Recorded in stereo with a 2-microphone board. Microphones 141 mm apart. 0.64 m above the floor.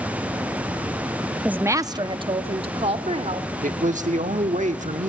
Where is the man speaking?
55° right (ahead or behind), 1.2 m.